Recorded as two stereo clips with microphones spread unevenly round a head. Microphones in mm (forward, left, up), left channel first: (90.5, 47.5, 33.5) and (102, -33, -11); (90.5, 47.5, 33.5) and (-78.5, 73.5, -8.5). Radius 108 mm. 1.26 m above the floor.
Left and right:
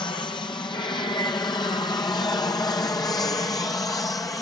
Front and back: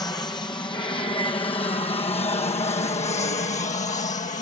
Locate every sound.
0.0 s an aircraft: 65° left; by 4.4 s 40° left